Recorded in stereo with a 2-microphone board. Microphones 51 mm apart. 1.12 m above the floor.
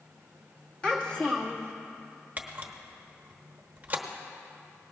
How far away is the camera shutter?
About 1.0 m.